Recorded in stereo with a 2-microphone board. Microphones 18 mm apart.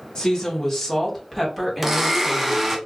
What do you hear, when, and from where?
0.1 s a woman speaking: 35° left (ahead or behind), 1.1 m; by 2.8 s 20° right (ahead or behind), 1.6 m
1.8 s a blender: 15° right (ahead or behind), 0.5 m